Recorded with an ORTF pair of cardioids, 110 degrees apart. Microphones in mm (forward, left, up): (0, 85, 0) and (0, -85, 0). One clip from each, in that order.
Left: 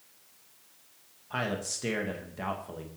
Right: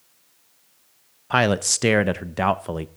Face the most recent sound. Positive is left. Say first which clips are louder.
# right 13 dB
turn(degrees=-70)